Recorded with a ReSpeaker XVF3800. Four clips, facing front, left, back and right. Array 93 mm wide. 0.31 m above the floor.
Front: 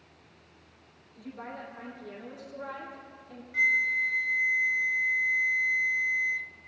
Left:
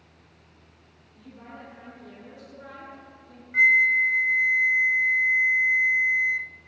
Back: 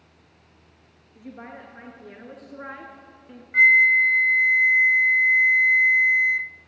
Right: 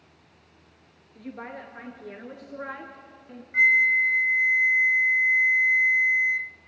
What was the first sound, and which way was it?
A woman speaking, 115° right.